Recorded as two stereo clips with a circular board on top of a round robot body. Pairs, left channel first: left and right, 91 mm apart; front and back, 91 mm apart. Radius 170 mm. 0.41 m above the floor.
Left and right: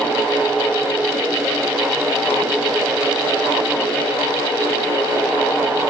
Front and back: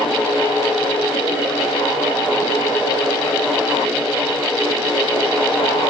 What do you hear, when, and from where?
Only background noise.